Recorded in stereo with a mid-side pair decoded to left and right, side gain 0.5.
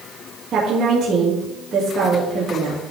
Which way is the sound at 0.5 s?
50° right.